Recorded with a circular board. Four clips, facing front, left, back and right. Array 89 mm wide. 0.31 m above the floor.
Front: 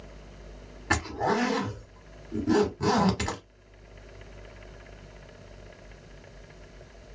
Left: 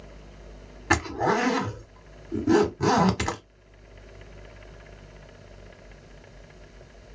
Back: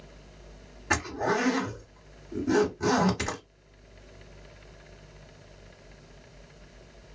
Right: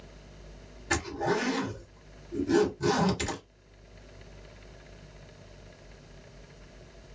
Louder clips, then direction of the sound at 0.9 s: Left 5 dB, front 1 dB; 80° left.